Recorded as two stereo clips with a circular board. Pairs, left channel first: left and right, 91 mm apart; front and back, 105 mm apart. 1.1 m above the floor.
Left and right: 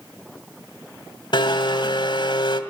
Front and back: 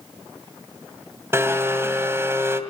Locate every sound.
1.3 s a blender: 115° left, 2.5 m